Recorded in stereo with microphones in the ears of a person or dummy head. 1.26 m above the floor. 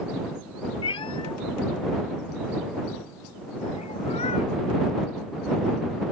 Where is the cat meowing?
25° left (ahead or behind); by 4.5 s 30° left (ahead or behind).